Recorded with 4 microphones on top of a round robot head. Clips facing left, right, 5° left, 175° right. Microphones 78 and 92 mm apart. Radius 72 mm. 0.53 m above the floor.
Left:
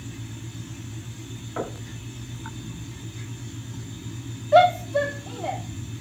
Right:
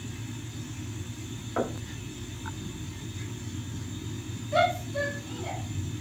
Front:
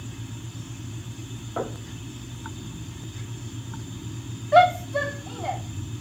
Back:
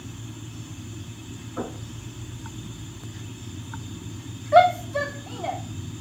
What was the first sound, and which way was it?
Knocking, 15° right.